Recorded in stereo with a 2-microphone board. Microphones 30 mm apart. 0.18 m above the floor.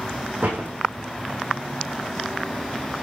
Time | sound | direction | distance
0.4 | a door slam | 65° right (ahead or behind) | 6.5 m